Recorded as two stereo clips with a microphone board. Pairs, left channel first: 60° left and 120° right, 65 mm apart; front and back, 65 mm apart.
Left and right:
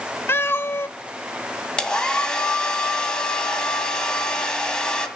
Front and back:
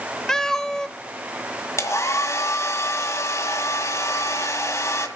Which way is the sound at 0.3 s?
75° left.